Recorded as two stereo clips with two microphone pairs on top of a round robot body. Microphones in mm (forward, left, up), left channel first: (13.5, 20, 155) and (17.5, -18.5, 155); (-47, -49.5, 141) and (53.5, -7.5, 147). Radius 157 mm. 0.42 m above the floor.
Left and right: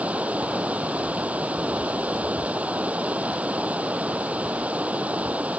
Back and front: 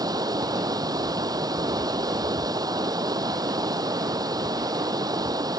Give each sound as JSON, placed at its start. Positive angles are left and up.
{"t": 0.0, "sound": "running water", "azimuth_deg": -30}